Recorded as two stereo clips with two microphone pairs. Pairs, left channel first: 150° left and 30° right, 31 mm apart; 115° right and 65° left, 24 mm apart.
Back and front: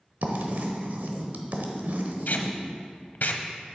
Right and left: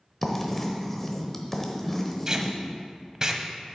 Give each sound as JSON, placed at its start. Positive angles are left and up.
{"t": 0.2, "sound": "writing", "azimuth_deg": -35, "distance_m": 0.9}
{"t": 2.3, "sound": "tape being pulled", "azimuth_deg": 125, "distance_m": 0.6}